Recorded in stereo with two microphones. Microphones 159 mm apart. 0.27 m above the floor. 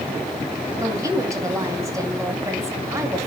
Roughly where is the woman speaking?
Centre.